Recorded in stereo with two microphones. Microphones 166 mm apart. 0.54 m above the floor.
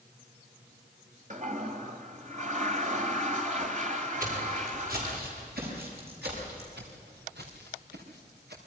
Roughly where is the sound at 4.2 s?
Right.